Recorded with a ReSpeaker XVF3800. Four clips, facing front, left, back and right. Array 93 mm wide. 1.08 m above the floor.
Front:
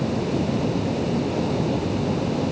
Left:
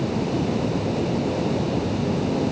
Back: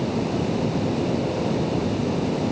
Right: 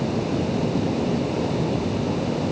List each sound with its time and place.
Only background noise.